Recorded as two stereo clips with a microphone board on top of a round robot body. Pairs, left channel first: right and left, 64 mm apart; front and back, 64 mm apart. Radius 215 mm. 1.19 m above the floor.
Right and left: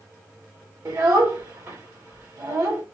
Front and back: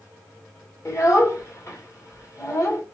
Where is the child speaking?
50° left, 2.5 m.